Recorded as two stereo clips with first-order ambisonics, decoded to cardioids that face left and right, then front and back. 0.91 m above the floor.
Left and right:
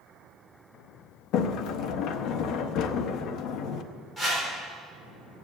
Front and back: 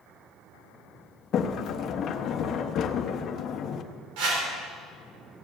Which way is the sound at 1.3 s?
55° left.